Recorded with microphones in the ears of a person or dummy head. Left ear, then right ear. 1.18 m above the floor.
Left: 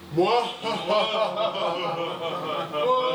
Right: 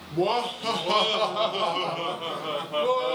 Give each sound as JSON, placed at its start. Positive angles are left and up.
{"t": 0.1, "sound": "laughter", "side_deg": 10, "distance_m": 0.6}